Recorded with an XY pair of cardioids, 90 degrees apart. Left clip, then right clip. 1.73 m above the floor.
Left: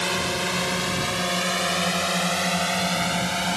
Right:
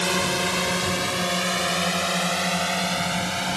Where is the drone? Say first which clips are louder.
Right 2 dB; 30° right; by 3.6 s 10° left.